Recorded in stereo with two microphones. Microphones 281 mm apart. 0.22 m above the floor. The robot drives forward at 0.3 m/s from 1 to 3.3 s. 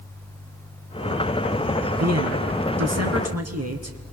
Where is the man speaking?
65° right (ahead or behind), 3 m; by 4.0 s 60° right (ahead or behind), 3 m.